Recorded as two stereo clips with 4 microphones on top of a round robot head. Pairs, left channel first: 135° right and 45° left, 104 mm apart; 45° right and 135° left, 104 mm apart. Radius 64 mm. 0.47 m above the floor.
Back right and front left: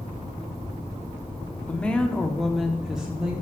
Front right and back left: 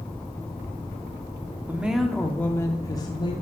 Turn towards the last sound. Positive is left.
turn(degrees=-35)